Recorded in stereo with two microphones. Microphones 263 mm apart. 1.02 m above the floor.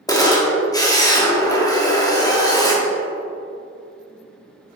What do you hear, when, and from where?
0.1 s a camera shutter: 15° left (ahead or behind), 1.0 m